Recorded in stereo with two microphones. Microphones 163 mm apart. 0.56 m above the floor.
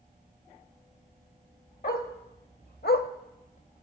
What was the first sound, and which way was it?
A dog barking, 65° left (ahead or behind).